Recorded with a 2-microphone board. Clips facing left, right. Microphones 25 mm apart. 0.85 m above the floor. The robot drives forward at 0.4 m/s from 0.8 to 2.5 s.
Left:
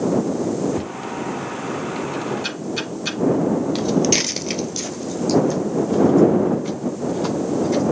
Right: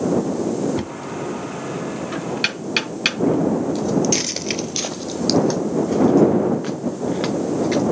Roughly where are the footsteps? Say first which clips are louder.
Left 1 dB; left.